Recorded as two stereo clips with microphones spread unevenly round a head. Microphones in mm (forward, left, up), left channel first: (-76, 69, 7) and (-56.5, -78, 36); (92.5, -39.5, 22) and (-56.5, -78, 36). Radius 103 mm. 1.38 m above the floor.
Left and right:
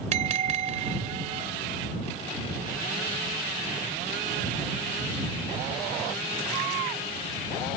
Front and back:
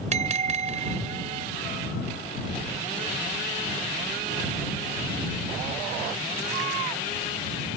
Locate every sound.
0.1 s a bell: 125° right